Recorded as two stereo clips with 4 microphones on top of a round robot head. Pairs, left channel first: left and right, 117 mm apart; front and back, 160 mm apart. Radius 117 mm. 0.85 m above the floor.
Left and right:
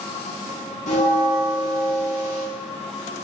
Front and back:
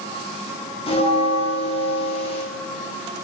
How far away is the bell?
About 1.1 m.